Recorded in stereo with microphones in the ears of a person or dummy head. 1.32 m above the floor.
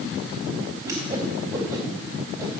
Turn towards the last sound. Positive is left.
turn(degrees=-15)  # may be behind; listen again after turning